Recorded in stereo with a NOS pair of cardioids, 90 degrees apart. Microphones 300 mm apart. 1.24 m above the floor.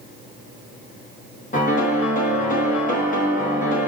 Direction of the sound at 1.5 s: 25° left.